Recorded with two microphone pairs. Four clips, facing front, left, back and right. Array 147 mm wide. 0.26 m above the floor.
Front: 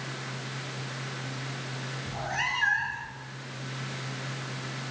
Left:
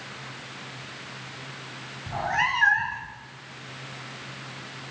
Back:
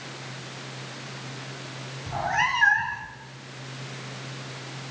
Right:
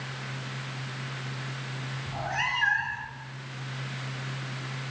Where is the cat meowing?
150° left, 1.0 m.